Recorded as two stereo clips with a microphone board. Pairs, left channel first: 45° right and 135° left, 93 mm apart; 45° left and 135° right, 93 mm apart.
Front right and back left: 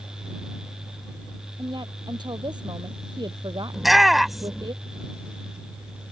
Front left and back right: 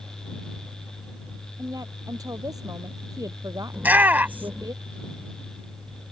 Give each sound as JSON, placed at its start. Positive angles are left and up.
{"t": 1.6, "sound": "a woman speaking", "azimuth_deg": 175}
{"t": 3.7, "sound": "a shout", "azimuth_deg": -140}